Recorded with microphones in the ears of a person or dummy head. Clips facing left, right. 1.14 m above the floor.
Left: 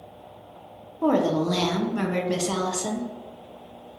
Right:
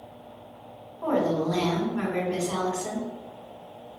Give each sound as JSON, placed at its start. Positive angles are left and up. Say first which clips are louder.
{"t": 1.0, "sound": "a woman speaking", "louder": "left 3 dB", "side_deg": 50, "distance_m": 0.6}